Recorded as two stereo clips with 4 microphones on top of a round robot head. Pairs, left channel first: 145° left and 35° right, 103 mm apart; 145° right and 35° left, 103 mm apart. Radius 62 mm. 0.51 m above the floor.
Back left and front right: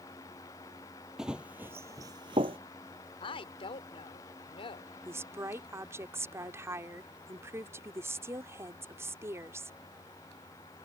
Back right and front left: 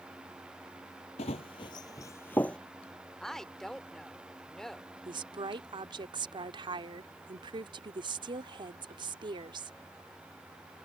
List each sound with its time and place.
1.2 s running footsteps: 120° right; by 2.6 s 65° right
3.2 s a woman speaking: 125° left
5.0 s a woman speaking: 25° left